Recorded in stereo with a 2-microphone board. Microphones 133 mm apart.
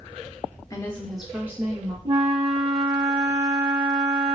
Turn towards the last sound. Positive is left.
turn(degrees=-45)  # may be behind; listen again after turning